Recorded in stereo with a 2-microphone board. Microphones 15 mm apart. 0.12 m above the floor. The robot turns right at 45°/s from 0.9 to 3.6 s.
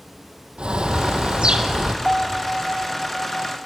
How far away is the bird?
About 0.9 m.